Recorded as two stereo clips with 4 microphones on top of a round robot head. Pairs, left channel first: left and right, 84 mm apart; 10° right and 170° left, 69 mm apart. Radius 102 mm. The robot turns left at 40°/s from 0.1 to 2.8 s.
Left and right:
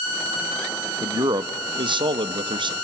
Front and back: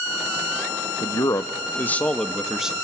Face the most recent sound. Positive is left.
turn(degrees=-110)